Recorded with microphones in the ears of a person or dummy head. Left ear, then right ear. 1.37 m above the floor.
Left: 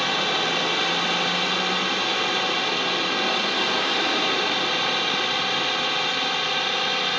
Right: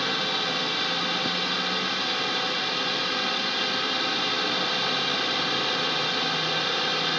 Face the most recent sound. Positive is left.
turn(degrees=30)  # may be behind; listen again after turning